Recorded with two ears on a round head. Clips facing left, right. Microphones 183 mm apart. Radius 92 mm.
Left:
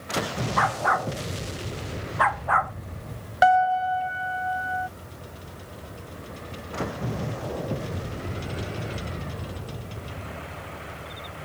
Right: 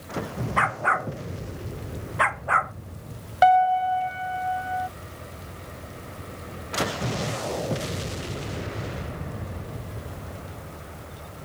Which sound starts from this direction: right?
A dog barking, at 0.6 s.